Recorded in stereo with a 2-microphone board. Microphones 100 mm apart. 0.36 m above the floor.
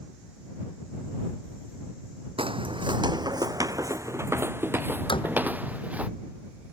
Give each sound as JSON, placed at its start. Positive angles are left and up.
{"t": 2.4, "sound": "footsteps", "side_deg": -65}
{"t": 5.1, "sound": "a door slam", "side_deg": 55}